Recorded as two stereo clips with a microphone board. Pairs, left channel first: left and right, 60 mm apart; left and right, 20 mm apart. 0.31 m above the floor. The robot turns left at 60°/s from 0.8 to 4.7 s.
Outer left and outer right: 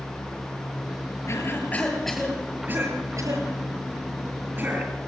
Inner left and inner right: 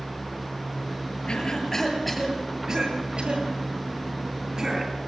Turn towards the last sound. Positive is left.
turn(degrees=-30)  # may be behind; listen again after turning